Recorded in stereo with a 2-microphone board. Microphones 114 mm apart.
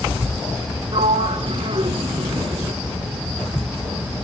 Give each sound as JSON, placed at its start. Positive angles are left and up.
{"t": 0.9, "sound": "a sliding door", "side_deg": -55, "distance_m": 1.0}